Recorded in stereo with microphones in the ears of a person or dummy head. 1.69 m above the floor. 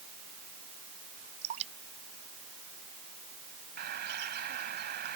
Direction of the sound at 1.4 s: 35° right (ahead or behind).